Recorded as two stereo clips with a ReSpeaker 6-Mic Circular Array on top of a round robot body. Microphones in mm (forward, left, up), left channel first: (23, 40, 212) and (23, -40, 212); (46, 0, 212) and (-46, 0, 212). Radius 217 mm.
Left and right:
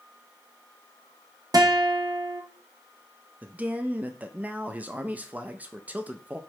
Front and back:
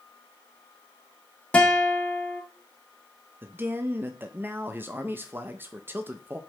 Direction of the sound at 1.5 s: 75° right.